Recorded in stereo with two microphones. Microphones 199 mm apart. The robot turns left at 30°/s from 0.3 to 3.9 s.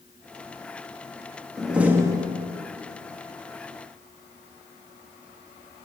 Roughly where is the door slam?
Centre.